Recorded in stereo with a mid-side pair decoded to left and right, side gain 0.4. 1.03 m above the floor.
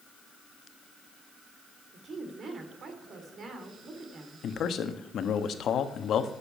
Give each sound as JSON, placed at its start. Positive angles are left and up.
{"t": 1.9, "sound": "a woman speaking", "azimuth_deg": -55, "distance_m": 3.0}
{"t": 4.4, "sound": "a man speaking", "azimuth_deg": 65, "distance_m": 1.2}